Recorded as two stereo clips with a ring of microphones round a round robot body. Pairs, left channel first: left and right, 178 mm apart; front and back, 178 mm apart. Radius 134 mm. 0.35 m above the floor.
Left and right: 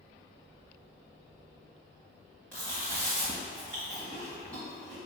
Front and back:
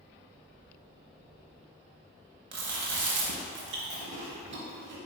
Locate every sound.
2.5 s chewing: 175° left, 1.0 m